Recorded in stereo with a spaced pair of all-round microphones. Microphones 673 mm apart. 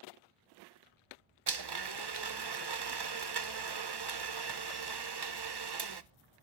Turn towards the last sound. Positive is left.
turn(degrees=-40)  # may be behind; listen again after turning